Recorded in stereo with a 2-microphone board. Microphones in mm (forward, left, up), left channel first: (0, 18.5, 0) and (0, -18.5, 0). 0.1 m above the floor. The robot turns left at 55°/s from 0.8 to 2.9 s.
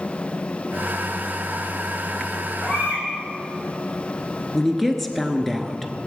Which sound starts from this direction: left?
A baby crying, at 2.6 s.